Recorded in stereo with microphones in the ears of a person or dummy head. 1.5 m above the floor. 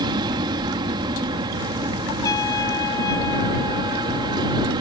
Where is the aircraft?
30° right (ahead or behind).